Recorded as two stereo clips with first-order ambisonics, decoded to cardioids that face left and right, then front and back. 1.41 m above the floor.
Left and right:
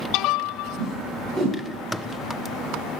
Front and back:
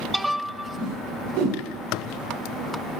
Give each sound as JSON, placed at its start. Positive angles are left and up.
{"t": 0.8, "sound": "a whoosh", "azimuth_deg": -175, "distance_m": 4.0}